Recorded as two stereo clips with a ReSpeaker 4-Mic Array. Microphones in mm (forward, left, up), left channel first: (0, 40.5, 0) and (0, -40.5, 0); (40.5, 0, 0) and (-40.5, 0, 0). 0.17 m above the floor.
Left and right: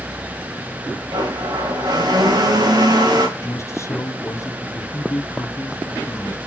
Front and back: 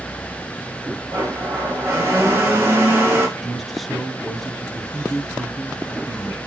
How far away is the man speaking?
About 1.5 m.